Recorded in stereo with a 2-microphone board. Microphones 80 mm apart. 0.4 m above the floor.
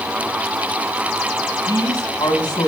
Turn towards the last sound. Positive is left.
turn(degrees=50)  # may be behind; listen again after turning